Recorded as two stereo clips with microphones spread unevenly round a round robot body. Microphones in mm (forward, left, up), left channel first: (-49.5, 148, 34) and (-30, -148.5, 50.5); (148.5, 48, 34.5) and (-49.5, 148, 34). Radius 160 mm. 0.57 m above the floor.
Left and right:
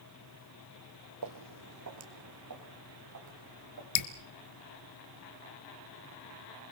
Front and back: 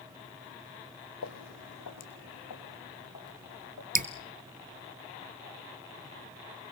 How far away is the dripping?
About 1.5 m.